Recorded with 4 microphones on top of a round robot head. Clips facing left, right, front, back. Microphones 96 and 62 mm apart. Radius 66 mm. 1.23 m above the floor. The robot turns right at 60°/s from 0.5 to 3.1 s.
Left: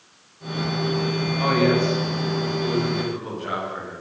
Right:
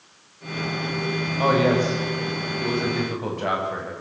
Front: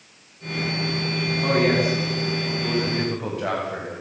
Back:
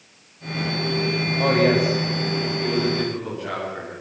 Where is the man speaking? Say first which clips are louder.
Right 1 dB, back 2 dB; 155° right, 9 m; by 4.0 s 55° right, 9 m.